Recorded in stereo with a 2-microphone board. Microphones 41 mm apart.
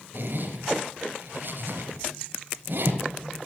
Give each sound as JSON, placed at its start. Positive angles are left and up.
{"t": 0.1, "sound": "a zipper", "side_deg": -55, "distance_m": 2.5}